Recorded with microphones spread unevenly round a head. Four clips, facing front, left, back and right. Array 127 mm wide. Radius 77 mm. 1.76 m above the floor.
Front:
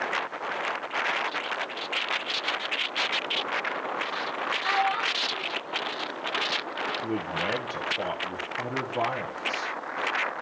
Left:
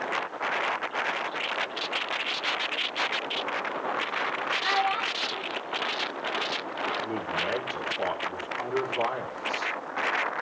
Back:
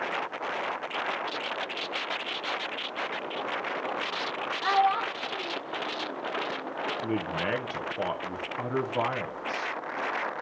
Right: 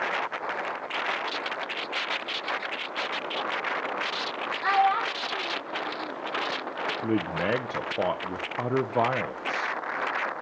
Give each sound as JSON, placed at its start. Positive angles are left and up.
{"t": 4.6, "sound": "a child speaking", "azimuth_deg": -160, "distance_m": 0.8}
{"t": 7.0, "sound": "a man speaking", "azimuth_deg": -90, "distance_m": 1.6}